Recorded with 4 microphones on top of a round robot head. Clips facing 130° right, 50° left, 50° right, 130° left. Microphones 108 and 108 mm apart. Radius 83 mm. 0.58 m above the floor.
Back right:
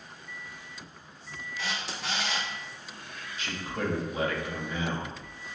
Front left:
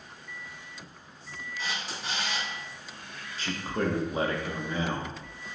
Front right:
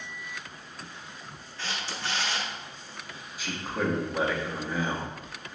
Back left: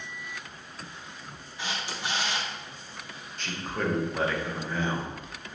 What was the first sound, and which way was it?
A camera shutter, 155° right.